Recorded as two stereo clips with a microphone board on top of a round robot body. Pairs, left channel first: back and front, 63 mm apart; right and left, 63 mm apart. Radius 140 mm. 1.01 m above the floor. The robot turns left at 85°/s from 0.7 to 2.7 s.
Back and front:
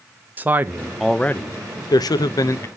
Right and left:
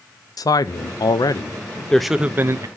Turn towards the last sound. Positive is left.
turn(degrees=125)